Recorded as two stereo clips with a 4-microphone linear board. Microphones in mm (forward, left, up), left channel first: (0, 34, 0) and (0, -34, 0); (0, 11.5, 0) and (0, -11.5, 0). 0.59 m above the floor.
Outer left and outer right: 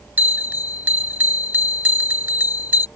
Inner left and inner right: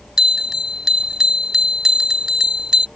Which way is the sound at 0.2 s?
30° right (ahead or behind).